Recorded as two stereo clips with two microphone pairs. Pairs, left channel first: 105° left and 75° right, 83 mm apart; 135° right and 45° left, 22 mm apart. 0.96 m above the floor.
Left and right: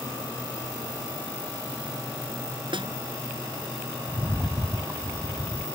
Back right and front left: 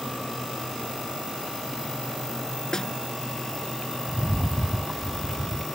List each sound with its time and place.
2.7 s a snare drum: 75° right
4.1 s a rattle: 20° right